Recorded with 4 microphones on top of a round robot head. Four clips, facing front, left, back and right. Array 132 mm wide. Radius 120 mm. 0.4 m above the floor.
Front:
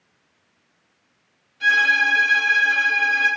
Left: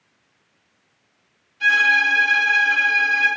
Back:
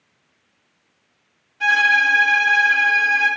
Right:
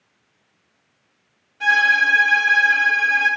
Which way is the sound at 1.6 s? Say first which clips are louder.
Right 1 dB, back 2 dB; 130° right.